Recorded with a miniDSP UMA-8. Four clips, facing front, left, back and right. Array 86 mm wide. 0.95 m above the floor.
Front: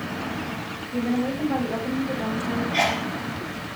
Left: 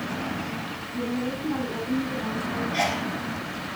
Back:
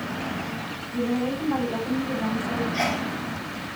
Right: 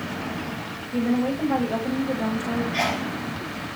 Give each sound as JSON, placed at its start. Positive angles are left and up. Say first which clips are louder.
{"t": 0.9, "sound": "a woman speaking", "louder": "right 6 dB, front 1 dB", "azimuth_deg": -65, "distance_m": 5.5}
{"t": 2.7, "sound": "a sneeze", "louder": "right 1 dB, front 2 dB", "azimuth_deg": -15, "distance_m": 3.0}